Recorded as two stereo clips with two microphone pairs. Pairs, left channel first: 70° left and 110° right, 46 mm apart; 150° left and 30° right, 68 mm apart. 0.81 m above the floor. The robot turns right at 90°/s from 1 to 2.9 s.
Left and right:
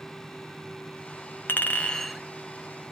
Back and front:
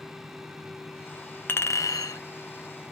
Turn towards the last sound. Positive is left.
turn(degrees=-130)